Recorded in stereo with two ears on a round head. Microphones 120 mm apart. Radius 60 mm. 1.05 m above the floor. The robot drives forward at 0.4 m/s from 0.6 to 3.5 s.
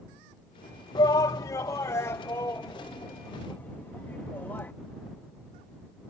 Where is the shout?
25° left (ahead or behind); by 4.7 s 15° left (ahead or behind).